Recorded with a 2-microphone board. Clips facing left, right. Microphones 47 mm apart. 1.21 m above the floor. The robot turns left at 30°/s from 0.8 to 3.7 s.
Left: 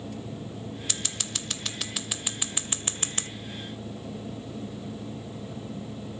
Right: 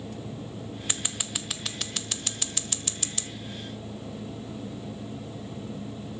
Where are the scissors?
25° right (ahead or behind), 0.6 m; by 3.3 s 40° left (ahead or behind), 0.6 m.